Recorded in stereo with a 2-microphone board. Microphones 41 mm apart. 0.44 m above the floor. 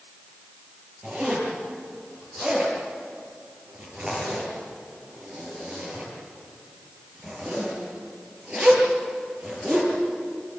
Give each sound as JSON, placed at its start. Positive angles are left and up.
{"t": 1.0, "sound": "a zipper", "side_deg": -30, "distance_m": 9.5}